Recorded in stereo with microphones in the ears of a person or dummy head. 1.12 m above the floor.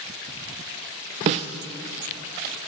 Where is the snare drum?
30° right (ahead or behind), 0.5 m.